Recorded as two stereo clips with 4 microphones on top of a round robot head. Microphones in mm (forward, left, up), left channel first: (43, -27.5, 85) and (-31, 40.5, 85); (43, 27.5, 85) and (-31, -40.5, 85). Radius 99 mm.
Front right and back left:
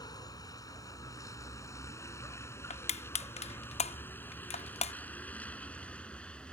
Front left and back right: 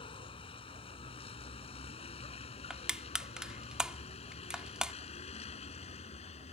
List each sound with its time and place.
0.0 s a vehicle: 10° left; by 6.5 s 40° left
2.7 s crushing: 55° right